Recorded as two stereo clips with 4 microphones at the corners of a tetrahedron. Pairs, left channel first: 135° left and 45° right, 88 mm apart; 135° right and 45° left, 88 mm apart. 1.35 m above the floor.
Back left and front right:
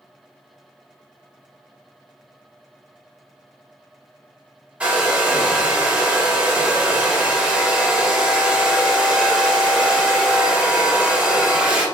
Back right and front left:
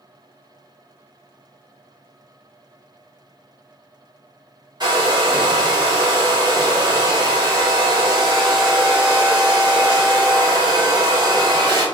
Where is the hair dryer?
30° left, 0.8 m.